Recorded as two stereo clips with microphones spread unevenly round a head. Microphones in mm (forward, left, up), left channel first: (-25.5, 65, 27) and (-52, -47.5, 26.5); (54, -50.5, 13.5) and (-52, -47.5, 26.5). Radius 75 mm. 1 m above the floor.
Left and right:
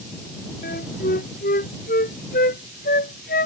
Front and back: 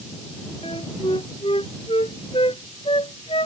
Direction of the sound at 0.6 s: 60° left.